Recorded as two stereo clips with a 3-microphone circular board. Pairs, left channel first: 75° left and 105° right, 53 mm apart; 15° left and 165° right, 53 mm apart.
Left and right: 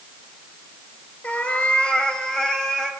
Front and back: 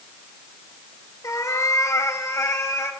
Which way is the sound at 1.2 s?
15° left.